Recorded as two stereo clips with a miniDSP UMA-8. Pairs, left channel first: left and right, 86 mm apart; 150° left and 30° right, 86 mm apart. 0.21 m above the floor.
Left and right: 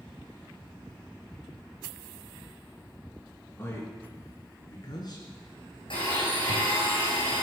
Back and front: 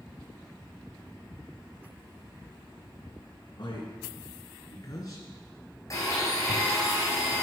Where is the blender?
100° left, 6.5 m.